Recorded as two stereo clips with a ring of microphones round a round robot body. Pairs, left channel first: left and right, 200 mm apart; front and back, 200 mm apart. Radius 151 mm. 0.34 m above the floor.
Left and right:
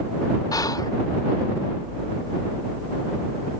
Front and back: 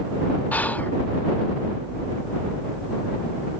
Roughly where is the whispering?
Ahead left.